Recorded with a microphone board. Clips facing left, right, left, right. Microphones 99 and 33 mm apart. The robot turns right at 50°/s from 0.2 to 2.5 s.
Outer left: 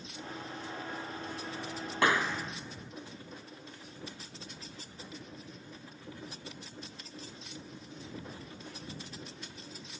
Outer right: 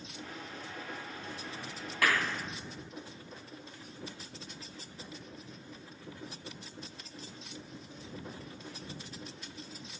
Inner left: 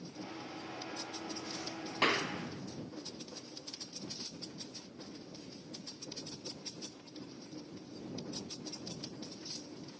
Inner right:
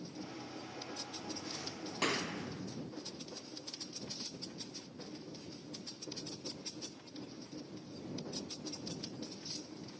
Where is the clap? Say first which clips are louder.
Outer left 2 dB, inner left 4 dB; 25° left (ahead or behind); by 2.9 s centre (ahead or behind).